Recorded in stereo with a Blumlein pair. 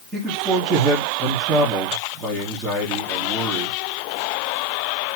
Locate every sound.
0.1 s a man speaking: 20° right, 4.5 m